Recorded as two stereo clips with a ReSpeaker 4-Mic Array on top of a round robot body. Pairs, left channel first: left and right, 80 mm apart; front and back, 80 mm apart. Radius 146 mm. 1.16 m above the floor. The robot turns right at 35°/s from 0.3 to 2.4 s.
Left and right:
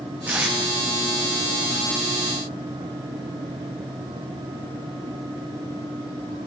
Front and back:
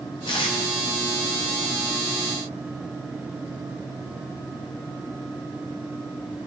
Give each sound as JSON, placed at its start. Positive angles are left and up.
{"t": 0.3, "sound": "tape being pulled", "azimuth_deg": -20, "distance_m": 0.7}